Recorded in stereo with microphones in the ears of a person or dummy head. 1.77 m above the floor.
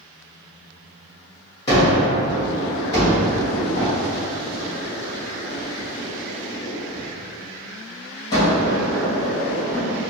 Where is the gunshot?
25° left (ahead or behind), 1.3 m.